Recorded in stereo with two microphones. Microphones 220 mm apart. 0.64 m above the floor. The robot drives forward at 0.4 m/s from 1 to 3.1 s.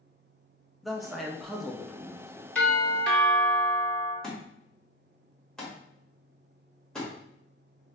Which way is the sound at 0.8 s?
Centre (ahead or behind).